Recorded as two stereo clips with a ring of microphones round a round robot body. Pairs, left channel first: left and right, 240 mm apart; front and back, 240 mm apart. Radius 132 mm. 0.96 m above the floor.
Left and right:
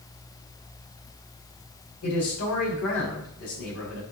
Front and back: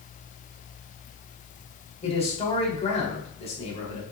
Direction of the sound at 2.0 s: 65° left.